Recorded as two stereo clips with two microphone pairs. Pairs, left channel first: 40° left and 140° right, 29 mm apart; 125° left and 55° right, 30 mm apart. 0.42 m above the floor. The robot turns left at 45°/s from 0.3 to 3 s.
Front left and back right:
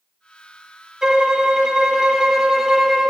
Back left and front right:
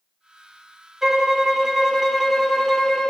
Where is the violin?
110° right, 0.8 m; by 3.1 s 160° left, 0.8 m.